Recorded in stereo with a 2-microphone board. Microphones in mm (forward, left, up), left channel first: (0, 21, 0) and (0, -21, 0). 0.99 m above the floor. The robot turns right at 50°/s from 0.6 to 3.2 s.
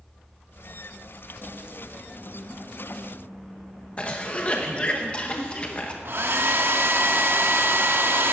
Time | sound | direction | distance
4.0 | a cough | 30° left (ahead or behind) | 0.9 m
6.0 | a hair dryer | 65° right (ahead or behind) | 1.2 m